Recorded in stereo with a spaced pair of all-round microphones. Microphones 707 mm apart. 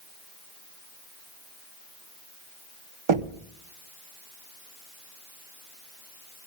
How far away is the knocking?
About 0.7 m.